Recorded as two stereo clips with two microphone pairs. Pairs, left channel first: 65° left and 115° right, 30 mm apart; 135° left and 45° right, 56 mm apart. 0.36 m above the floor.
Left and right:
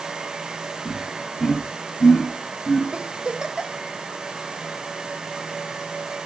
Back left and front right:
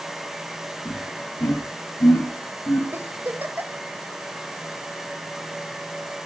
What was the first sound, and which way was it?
Laughter, 135° left.